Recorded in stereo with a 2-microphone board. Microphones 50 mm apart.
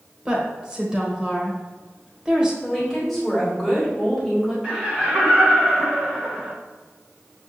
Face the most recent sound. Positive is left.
turn(degrees=-20)  # may be behind; listen again after turning